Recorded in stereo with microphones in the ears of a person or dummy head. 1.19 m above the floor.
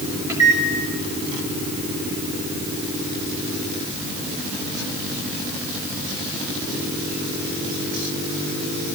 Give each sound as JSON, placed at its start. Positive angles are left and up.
{"t": 0.3, "sound": "a microwave", "side_deg": -15, "distance_m": 3.5}